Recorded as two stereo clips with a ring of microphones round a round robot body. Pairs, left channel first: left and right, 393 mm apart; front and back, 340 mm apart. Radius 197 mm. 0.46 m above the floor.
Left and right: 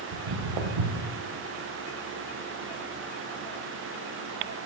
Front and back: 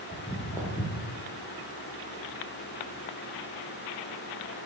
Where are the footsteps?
90° right, 1.9 m; by 1.2 s 70° right, 2 m.